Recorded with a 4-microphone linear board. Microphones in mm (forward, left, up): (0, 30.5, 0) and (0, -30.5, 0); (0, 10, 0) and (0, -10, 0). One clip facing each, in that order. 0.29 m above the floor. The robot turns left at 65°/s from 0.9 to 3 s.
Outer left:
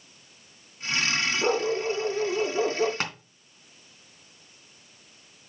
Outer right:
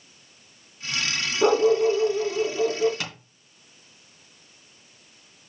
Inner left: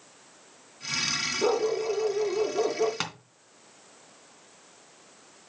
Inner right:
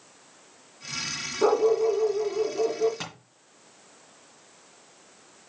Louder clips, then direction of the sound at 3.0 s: Outer left 3 dB, inner left 4 dB; 40° left (ahead or behind).